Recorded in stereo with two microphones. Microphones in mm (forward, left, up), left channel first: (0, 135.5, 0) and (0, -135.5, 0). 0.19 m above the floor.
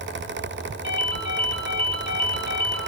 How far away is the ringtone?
About 4 m.